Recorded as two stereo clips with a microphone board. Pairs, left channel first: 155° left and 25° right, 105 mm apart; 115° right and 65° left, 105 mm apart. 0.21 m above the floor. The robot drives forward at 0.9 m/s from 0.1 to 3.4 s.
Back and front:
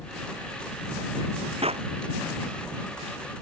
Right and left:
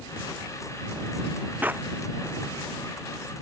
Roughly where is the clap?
Ahead.